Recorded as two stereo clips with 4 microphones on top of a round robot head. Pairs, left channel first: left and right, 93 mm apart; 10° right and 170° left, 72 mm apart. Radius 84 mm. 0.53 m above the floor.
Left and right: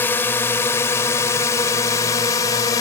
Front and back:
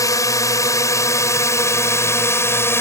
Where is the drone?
20° left; by 2.8 s 40° left.